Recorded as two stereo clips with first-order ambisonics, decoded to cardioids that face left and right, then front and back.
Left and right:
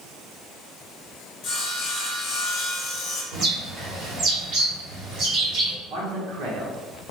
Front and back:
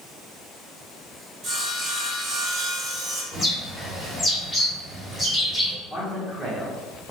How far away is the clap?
No clap in this recording.